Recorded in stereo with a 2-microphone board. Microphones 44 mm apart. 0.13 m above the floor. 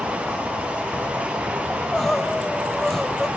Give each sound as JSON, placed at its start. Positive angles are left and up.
{"t": 0.0, "sound": "an insect", "side_deg": -75, "distance_m": 3.5}
{"t": 1.7, "sound": "crying", "side_deg": 10, "distance_m": 0.6}